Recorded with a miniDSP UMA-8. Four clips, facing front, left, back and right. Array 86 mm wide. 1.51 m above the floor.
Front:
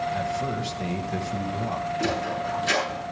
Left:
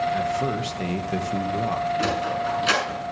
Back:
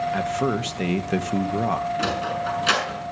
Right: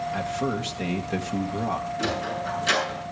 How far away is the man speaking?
About 1.4 m.